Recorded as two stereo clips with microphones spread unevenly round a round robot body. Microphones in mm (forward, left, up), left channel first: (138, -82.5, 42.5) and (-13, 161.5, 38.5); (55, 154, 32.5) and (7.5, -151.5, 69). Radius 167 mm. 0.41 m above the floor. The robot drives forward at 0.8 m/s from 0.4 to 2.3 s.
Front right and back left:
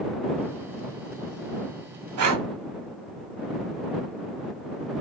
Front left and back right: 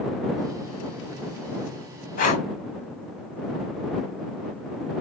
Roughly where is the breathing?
Behind left.